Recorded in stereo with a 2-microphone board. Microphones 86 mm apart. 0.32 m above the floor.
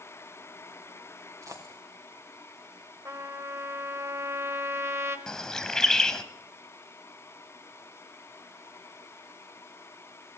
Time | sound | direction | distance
1.4 | a dropped coin | 40° right (ahead or behind) | 2.5 m
3.0 | a trumpet | 35° right (ahead or behind) | 1.4 m
5.3 | a bird | 10° left (ahead or behind) | 1.0 m